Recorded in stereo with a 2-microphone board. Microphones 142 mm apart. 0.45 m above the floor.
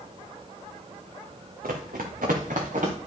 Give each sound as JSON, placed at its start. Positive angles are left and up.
{"t": 1.6, "sound": "running footsteps", "side_deg": -75, "distance_m": 1.8}